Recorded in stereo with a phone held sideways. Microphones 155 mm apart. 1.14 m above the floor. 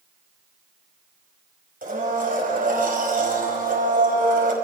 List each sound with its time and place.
1.8 s a blender: 65° right (ahead or behind), 5.5 m